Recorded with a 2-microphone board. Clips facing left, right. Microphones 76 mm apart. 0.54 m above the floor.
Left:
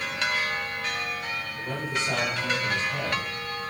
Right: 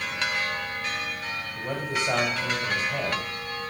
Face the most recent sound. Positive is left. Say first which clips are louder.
# right 2 dB
turn(degrees=-50)  # may be behind; listen again after turning